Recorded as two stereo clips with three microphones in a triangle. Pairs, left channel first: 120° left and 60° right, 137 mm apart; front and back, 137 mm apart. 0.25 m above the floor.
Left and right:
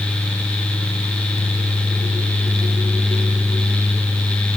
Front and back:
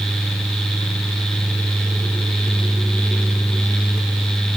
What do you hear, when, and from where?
Only background noise.